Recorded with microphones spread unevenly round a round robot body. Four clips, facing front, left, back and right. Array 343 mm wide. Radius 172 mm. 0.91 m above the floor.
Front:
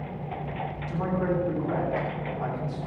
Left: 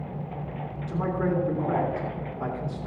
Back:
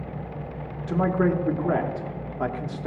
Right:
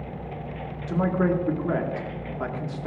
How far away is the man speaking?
About 2 m.